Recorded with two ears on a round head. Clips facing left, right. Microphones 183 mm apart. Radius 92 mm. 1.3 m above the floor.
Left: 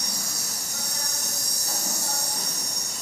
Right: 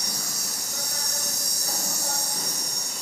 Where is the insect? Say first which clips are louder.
Even; 50° right (ahead or behind), 3.5 m.